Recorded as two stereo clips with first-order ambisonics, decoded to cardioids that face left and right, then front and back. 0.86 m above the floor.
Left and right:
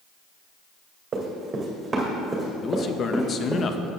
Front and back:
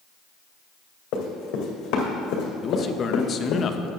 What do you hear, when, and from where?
1.1 s running footsteps: 30° right, 1.9 m; by 3.6 s straight ahead, 2.5 m
2.6 s a man speaking: 45° left, 0.5 m